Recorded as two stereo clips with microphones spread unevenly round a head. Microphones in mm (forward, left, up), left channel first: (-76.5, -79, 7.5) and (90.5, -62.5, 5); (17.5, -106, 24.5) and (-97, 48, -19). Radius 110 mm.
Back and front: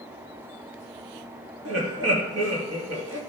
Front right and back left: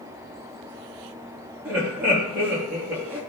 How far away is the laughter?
About 3 m.